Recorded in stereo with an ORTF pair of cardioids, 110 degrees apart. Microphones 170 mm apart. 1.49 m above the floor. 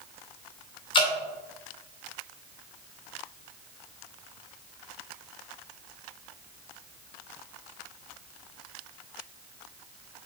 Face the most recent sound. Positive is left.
turn(degrees=35)